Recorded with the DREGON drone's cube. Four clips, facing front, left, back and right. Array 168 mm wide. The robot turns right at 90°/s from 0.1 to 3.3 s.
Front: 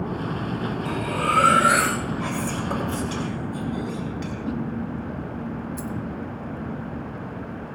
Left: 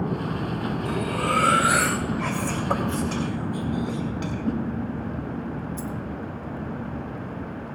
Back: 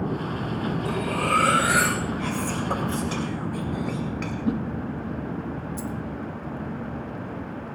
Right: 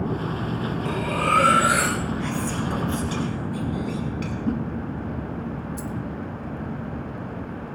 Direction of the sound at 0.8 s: 110° right.